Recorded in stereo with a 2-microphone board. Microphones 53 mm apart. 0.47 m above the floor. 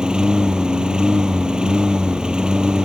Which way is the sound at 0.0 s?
15° right (ahead or behind).